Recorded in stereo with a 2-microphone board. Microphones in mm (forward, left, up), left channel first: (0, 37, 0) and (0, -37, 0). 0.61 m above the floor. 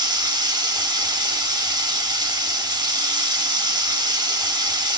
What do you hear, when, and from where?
0.0 s running water: 70° right (ahead or behind), 1.4 m